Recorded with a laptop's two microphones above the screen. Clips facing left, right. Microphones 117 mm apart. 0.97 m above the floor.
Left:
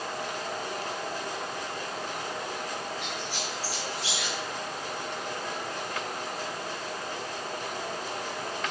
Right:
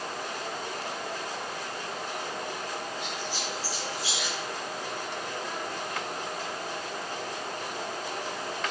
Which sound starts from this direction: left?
A squeak, at 3.0 s.